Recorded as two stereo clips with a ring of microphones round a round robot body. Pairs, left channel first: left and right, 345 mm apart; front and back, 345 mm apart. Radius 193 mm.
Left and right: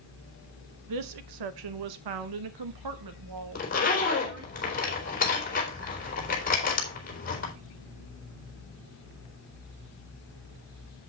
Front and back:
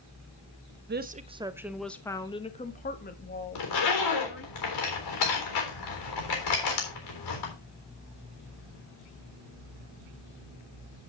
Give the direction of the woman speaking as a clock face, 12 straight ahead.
4 o'clock.